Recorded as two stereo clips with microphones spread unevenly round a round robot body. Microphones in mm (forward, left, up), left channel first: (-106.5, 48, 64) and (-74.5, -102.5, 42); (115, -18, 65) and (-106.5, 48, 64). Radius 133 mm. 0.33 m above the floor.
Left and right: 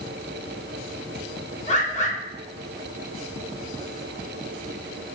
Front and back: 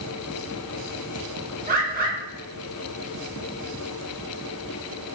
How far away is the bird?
About 0.7 m.